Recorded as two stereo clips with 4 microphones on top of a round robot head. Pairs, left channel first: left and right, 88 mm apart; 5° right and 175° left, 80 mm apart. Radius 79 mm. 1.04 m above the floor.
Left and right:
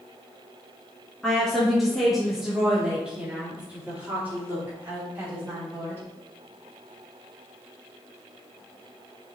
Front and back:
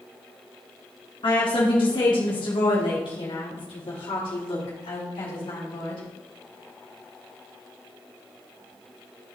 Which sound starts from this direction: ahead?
A woman speaking, at 1.2 s.